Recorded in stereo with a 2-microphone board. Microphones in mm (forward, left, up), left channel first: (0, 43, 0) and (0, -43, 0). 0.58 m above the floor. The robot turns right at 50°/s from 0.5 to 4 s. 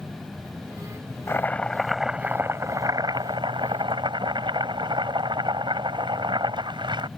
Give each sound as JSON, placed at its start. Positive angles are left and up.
{"t": 1.3, "sound": "chopping", "azimuth_deg": 150}